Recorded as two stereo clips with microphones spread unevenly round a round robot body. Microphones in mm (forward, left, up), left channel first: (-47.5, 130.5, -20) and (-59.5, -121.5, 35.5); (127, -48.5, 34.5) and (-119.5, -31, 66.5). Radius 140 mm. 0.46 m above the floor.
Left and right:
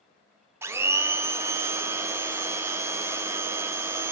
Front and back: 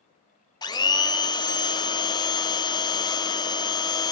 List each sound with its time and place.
0.6 s a blender: 5° left, 1.1 m